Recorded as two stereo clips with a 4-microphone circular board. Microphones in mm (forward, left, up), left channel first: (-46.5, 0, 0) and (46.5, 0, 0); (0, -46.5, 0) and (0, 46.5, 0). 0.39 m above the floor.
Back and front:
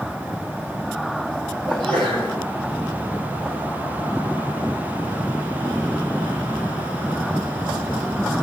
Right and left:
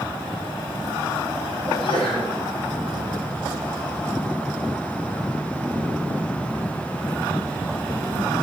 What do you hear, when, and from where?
1.7 s a sneeze: 105° right, 9 m